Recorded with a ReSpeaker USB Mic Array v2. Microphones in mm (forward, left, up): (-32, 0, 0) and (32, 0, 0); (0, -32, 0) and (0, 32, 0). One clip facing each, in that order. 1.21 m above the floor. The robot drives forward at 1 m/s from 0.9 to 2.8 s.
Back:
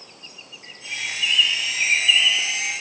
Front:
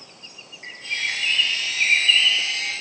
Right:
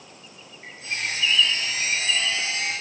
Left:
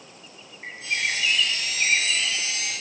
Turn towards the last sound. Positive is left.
turn(degrees=115)